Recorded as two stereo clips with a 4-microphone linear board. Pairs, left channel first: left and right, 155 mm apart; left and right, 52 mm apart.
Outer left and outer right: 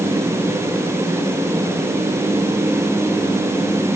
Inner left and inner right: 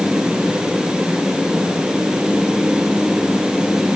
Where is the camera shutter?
I don't hear a camera shutter.